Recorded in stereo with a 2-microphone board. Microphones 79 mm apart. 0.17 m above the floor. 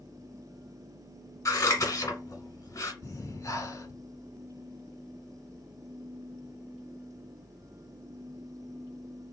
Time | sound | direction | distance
1.4 | scissors | 40° left (ahead or behind) | 1.5 m
3.0 | breathing | 40° left (ahead or behind) | 0.9 m